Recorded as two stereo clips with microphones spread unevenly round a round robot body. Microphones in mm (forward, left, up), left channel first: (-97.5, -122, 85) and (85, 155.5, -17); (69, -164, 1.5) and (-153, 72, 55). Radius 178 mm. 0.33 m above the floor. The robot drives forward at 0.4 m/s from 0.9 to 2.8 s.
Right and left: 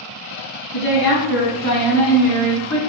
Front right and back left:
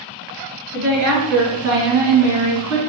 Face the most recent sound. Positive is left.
turn(degrees=170)